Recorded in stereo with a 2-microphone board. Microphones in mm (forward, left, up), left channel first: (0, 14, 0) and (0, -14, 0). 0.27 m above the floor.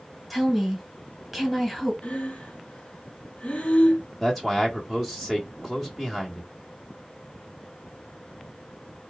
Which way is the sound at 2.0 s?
50° left (ahead or behind).